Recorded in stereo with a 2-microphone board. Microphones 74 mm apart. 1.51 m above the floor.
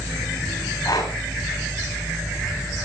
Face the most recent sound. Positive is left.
turn(degrees=60)  # may be behind; listen again after turning